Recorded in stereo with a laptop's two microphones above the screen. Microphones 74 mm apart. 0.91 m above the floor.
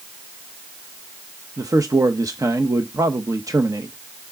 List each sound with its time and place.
1.6 s a man speaking: 50° right (ahead or behind), 0.8 m